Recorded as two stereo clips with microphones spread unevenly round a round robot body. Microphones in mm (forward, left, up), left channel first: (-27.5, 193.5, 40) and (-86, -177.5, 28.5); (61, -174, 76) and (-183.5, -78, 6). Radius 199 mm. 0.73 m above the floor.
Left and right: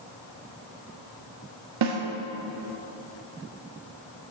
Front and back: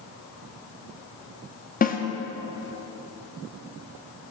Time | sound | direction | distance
1.8 | a snare drum | 85° right | 1.4 m